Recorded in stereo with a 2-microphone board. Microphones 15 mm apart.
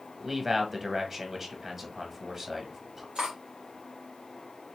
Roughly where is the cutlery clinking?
Right.